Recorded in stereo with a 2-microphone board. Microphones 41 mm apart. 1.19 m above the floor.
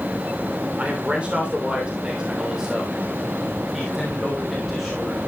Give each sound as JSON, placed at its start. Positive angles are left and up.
{"t": 0.8, "sound": "a man speaking", "side_deg": -35, "distance_m": 3.0}